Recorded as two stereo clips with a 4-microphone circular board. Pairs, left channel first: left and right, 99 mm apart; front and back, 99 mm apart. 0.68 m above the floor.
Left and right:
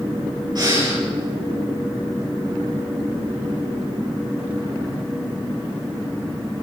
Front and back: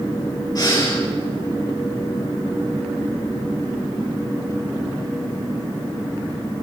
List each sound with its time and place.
0.6 s breathing: 45° right, 5 m